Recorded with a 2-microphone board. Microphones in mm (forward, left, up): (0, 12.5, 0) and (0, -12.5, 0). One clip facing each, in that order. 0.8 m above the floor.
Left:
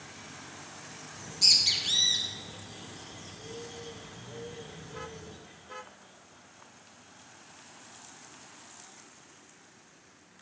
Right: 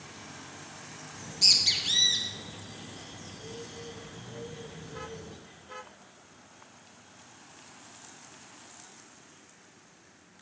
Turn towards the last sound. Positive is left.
turn(degrees=0)  # may be behind; listen again after turning